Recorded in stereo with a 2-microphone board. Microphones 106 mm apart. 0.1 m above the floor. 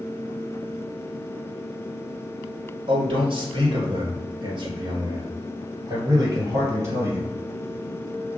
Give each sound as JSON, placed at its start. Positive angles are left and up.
{"t": 2.9, "sound": "a man speaking", "side_deg": -55, "distance_m": 2.5}